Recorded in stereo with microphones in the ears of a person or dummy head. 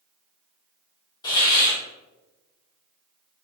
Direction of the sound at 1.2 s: 20° left (ahead or behind).